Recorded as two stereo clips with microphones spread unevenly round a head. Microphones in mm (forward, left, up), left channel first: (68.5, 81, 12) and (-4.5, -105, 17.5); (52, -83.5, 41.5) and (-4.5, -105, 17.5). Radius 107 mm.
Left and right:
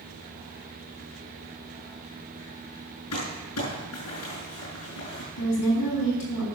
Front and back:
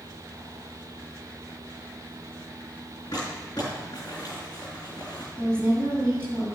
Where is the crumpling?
80° left, 6.5 m.